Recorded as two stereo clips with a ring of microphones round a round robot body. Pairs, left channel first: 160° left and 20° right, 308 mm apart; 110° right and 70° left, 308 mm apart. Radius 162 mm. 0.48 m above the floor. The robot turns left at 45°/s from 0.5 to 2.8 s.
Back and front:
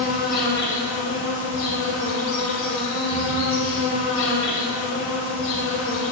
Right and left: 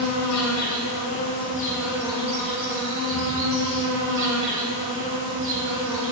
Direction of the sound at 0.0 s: 145° right.